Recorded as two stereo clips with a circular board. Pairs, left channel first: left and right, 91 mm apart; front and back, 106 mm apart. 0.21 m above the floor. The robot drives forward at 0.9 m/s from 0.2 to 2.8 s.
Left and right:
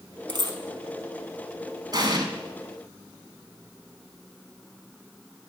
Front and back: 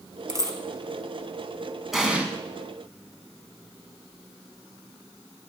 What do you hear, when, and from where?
0.3 s a dropped coin: 120° right, 1.6 m; by 0.6 s 130° right, 1.7 m
1.9 s an explosion: 95° right, 1.6 m; by 2.3 s 110° right, 1.7 m